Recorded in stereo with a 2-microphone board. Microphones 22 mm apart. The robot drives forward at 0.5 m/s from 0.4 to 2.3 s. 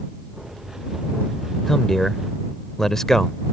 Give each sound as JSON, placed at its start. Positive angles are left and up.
{"t": 1.7, "sound": "a man speaking", "side_deg": 20}